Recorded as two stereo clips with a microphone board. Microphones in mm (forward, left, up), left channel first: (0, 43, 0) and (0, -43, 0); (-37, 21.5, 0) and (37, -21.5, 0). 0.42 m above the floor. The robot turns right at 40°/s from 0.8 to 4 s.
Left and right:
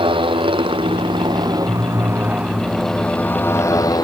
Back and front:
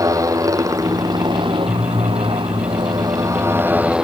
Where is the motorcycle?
80° right; by 4.0 s 50° left.